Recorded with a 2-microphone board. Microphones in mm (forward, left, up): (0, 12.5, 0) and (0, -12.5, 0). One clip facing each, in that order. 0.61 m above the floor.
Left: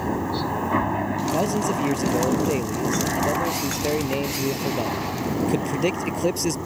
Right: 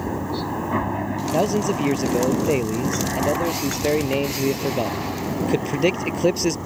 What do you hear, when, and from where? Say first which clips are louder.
0.0 s a helicopter: left 1 dB; 5° left (ahead or behind); by 6.7 s centre (ahead or behind)
1.3 s a man speaking: right 4 dB; 15° right (ahead or behind)